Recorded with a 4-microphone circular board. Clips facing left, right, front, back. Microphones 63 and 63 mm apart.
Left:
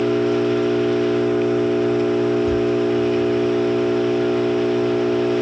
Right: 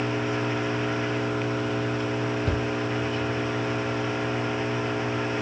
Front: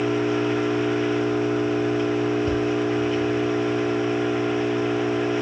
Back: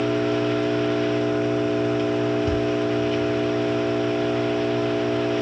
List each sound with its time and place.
0.0 s an engine running: 75° left, 4.5 m
2.4 s a cupboard door: 60° right, 5 m